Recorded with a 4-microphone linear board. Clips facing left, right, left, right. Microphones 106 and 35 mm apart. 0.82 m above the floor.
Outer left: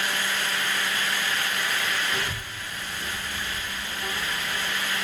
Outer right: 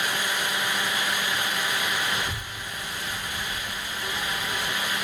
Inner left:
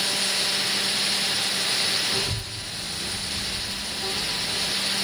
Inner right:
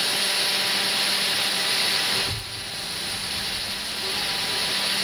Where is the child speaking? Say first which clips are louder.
Even, inner right 1 dB; 50° left (ahead or behind), 2 m; by 4.8 s 35° right (ahead or behind), 0.6 m.